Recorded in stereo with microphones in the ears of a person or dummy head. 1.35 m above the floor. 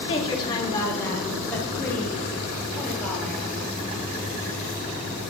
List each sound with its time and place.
0.1 s a woman speaking: 30° left (ahead or behind), 3 m; by 4.0 s 5° left (ahead or behind), 8.5 m